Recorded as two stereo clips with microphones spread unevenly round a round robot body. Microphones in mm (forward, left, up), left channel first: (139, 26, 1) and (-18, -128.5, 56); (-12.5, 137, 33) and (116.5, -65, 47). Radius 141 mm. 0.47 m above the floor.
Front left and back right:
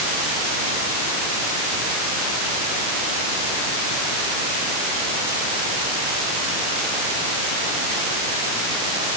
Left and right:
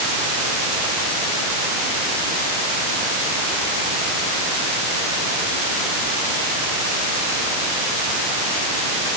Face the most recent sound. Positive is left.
No sound to turn to.